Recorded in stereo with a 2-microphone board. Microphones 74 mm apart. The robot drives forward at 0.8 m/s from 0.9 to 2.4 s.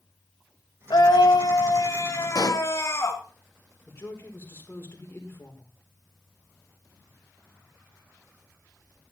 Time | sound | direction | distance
0.9 | a scream | 75° left (ahead or behind) | 1.2 m
2.4 | a pop | 60° left (ahead or behind) | 0.9 m
3.9 | a woman speaking | 35° left (ahead or behind) | 5 m